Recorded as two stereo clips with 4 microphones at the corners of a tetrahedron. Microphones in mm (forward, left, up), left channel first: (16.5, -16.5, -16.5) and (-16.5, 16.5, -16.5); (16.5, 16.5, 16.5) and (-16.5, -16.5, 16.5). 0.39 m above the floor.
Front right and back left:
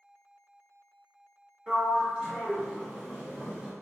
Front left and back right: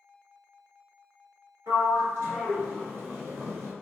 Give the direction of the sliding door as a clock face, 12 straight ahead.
5 o'clock.